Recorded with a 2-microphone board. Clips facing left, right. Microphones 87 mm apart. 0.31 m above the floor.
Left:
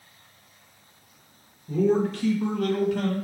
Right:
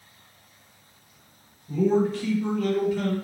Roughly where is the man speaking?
Left.